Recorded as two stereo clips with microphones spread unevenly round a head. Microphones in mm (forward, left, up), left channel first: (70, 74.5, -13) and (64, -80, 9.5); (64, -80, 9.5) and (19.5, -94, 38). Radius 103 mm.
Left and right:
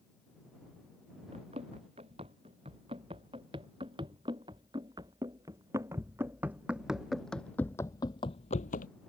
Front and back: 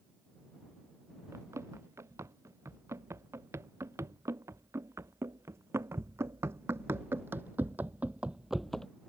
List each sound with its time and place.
1.3 s running footsteps: 155° right; by 8.9 s 125° left